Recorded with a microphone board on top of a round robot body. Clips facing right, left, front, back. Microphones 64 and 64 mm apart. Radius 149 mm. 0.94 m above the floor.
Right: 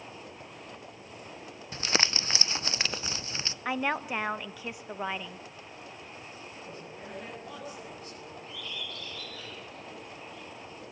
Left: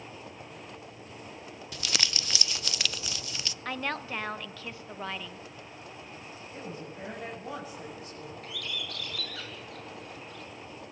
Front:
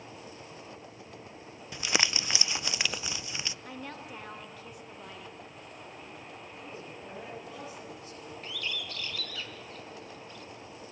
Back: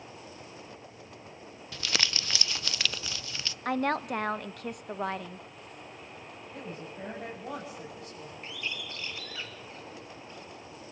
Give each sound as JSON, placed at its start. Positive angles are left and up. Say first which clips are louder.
{"t": 1.7, "sound": "crumpling", "louder": "right 4 dB, front 2 dB", "azimuth_deg": -60, "distance_m": 0.8}
{"t": 3.6, "sound": "a woman speaking", "louder": "right 4 dB, back 13 dB", "azimuth_deg": -165, "distance_m": 1.1}
{"t": 6.5, "sound": "a woman speaking", "louder": "left 3 dB, back 6 dB", "azimuth_deg": 150, "distance_m": 7.5}
{"t": 8.4, "sound": "a bird", "louder": "left 2 dB, even", "azimuth_deg": 110, "distance_m": 4.0}